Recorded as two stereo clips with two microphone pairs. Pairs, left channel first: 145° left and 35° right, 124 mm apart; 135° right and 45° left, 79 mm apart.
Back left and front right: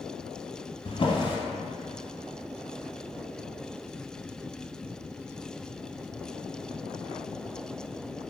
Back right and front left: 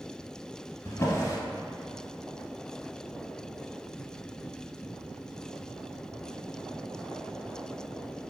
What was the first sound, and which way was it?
A drawer, straight behind.